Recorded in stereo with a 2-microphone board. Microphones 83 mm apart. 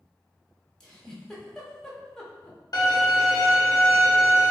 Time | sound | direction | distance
0.8 | a giggle | 5° left (ahead or behind) | 0.6 m
2.7 | a violin | 50° left (ahead or behind) | 0.7 m